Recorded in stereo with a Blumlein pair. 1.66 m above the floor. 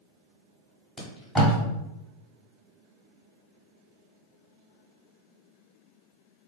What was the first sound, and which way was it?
Tape being pulled, 10° left.